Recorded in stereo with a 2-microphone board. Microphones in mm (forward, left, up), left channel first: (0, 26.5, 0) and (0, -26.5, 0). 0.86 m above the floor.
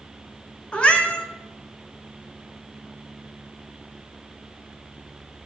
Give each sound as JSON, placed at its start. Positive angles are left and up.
{"t": 0.7, "sound": "a cat meowing", "side_deg": 20, "distance_m": 0.8}